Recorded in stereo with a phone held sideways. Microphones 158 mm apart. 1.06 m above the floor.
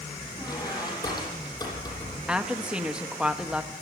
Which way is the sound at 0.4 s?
25° left (ahead or behind).